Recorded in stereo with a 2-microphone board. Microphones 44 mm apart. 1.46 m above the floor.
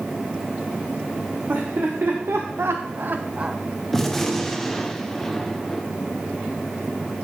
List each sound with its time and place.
1.5 s laughter: 50° right (ahead or behind), 1.2 m; by 3.6 s 20° right (ahead or behind), 0.7 m
3.9 s a gunshot: 5° left (ahead or behind), 0.6 m